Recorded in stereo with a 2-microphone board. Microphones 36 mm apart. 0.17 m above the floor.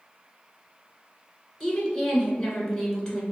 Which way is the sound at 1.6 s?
10° left (ahead or behind).